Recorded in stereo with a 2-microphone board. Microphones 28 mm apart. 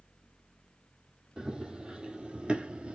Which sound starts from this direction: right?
Running footsteps, at 1.4 s.